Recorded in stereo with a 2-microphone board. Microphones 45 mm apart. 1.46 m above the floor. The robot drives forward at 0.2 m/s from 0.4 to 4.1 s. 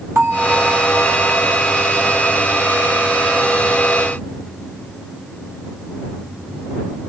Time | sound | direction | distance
0.1 | a bell | 65° right (ahead or behind) | 3 m